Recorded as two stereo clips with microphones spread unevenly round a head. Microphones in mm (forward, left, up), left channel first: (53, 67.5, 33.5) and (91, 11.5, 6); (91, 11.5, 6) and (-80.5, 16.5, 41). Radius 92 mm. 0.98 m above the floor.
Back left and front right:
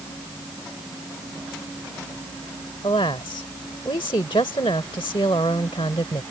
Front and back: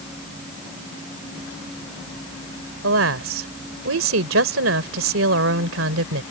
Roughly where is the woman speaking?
Behind.